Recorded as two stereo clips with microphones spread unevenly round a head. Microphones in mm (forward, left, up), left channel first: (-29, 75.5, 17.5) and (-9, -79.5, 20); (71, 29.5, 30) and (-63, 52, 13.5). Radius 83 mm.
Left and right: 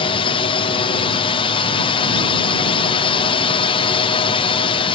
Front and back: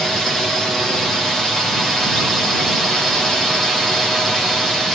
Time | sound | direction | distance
0.0 | a drone | 85° left | ?